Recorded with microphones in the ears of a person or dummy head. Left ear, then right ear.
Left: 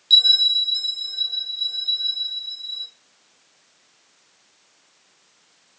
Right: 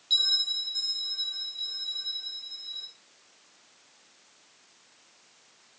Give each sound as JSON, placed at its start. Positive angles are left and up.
{"t": 0.1, "sound": "a bell", "side_deg": 30, "distance_m": 5.0}